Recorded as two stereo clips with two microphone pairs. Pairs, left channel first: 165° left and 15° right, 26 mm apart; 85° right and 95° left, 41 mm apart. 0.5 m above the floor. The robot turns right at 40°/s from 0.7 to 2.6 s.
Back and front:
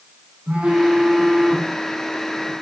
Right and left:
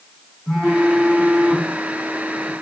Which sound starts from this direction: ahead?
A phone buzzing, at 0.5 s.